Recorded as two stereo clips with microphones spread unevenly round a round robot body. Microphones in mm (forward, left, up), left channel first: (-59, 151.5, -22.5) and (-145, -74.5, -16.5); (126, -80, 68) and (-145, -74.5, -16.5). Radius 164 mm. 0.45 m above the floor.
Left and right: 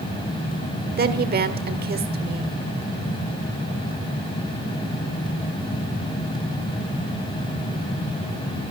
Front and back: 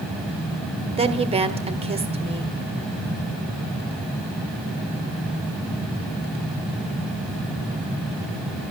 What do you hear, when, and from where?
1.0 s a woman speaking: 145° right, 1.4 m